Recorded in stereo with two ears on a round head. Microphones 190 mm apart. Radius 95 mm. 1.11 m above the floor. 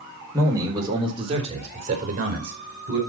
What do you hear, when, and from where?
0.3 s a man speaking: 15° right (ahead or behind), 3.5 m; by 3.0 s 50° right (ahead or behind), 4.5 m